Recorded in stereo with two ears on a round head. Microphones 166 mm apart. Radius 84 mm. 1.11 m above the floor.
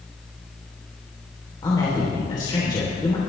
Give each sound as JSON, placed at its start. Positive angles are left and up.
{"t": 1.6, "sound": "a man speaking", "side_deg": 25, "distance_m": 3.5}